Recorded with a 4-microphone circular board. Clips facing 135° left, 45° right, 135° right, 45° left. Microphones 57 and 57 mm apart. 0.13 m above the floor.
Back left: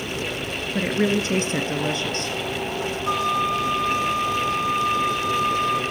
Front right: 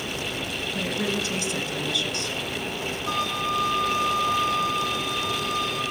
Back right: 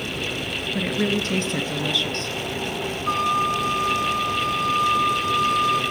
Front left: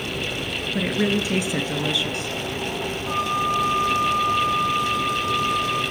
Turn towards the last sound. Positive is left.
turn(degrees=-155)